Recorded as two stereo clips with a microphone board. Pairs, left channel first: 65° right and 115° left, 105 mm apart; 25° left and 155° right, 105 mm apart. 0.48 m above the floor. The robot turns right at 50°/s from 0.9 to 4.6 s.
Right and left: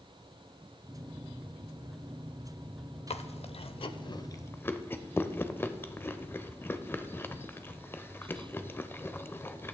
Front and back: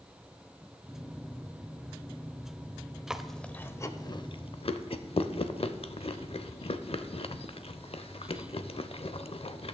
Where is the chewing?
75° right, 0.7 m; by 9.7 s straight ahead, 0.7 m.